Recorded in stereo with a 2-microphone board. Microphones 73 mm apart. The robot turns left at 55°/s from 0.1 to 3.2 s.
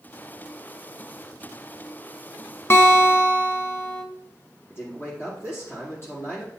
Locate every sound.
2.7 s a guitar: 35° left (ahead or behind), 1.4 m; by 4.0 s 25° left (ahead or behind), 1.4 m
4.7 s a man speaking: 35° left (ahead or behind), 6 m